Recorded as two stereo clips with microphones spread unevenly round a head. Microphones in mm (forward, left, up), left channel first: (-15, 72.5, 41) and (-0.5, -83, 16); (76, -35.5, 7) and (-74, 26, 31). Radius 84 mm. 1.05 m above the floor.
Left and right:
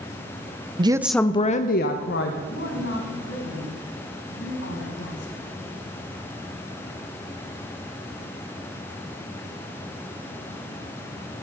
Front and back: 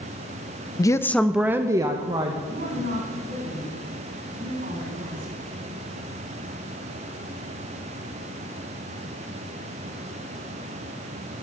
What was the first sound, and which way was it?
A woman speaking, 65° right.